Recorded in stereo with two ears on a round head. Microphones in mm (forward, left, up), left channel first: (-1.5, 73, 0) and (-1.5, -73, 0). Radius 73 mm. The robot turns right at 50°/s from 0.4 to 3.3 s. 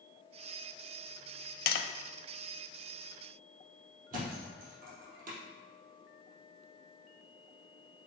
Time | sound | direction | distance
1.7 | tapping | 60° left (ahead or behind) | 0.5 m
4.1 | a thud | 55° right (ahead or behind) | 3 m